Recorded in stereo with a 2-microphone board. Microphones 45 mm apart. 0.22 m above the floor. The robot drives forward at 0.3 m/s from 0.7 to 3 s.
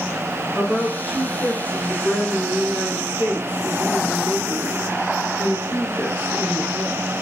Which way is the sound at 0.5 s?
40° right (ahead or behind).